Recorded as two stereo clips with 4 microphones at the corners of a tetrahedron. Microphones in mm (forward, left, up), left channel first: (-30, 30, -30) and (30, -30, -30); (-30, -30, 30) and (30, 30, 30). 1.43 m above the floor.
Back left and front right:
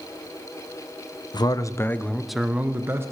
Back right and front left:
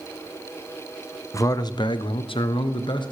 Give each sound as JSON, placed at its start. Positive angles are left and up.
{"t": 1.3, "sound": "a man speaking", "azimuth_deg": 170, "distance_m": 0.6}